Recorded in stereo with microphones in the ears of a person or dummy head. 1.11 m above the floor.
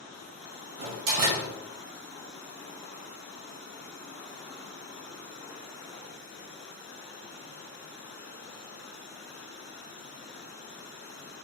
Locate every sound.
0.8 s a door slam: 55° right (ahead or behind), 0.5 m